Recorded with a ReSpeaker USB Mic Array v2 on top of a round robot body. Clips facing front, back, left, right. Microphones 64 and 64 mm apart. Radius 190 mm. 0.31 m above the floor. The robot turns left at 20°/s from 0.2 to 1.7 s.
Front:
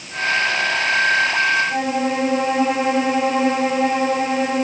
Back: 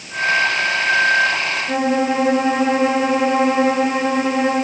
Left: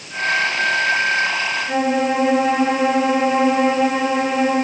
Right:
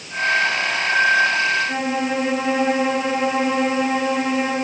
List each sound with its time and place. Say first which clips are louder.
1.7 s a violin: back 3 dB, left 4 dB; 175° left, 7 m